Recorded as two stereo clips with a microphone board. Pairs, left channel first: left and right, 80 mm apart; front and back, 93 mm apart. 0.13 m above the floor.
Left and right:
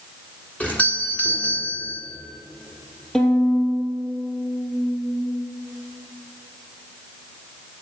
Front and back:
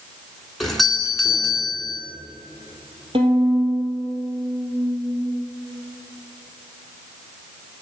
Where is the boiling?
No boiling in this recording.